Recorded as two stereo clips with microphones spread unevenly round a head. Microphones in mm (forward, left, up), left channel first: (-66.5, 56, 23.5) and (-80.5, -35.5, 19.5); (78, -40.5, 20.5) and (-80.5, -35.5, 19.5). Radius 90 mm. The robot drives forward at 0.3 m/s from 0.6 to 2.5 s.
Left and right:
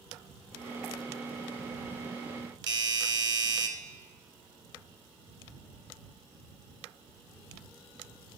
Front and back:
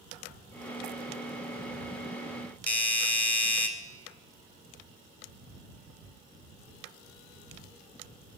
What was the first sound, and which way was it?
A doorbell, 80° right.